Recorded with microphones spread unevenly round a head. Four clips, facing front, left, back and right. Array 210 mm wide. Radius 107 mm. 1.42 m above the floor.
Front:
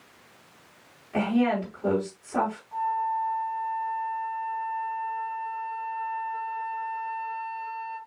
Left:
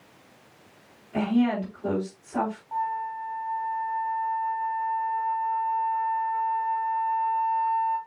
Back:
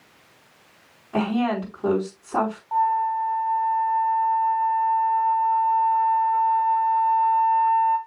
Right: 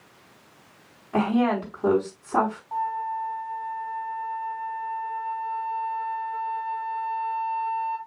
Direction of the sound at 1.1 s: 125° right.